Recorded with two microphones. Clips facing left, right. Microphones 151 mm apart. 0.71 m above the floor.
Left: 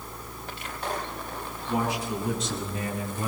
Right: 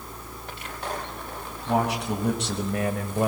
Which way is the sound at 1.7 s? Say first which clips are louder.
Right 3 dB; 75° right (ahead or behind).